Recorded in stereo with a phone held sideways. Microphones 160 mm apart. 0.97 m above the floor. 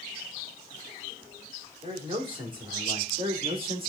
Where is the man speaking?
30° right (ahead or behind), 3.5 m; by 3.9 s 35° right (ahead or behind), 1.9 m.